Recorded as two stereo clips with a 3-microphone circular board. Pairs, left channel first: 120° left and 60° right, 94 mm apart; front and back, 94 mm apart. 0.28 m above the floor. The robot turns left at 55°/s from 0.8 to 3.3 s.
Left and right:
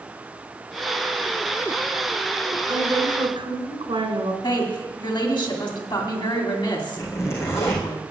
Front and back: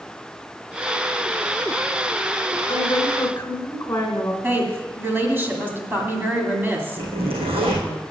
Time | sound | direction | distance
2.7 | a woman speaking | 30° right | 2 m
4.4 | a woman speaking | 120° left | 2.5 m
7.0 | a zipper | straight behind | 4 m